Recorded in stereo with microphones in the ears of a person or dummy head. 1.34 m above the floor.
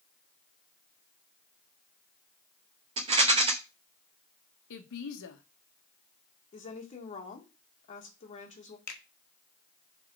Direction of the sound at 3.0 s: 25° right (ahead or behind).